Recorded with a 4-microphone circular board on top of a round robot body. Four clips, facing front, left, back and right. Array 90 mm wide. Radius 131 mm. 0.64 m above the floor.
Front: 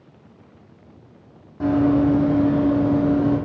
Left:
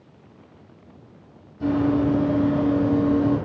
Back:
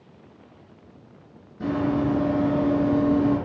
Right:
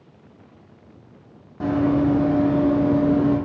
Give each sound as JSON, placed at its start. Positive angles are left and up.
{"t": 1.6, "sound": "running footsteps", "azimuth_deg": -50, "distance_m": 1.3}